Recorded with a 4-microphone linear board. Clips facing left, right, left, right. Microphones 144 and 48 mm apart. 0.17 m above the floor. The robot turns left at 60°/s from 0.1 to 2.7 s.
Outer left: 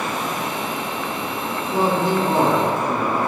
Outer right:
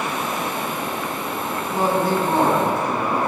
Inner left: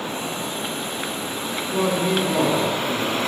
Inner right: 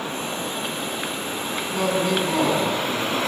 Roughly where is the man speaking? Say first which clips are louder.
Outer left 1 dB, inner left 1 dB; ahead left.